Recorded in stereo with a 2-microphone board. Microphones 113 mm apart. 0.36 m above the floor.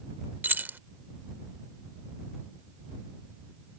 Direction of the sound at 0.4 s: 15° right (ahead or behind).